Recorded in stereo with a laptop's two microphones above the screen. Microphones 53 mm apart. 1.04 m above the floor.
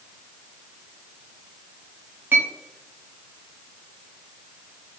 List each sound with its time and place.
2.3 s a clink: 40° right (ahead or behind), 0.8 m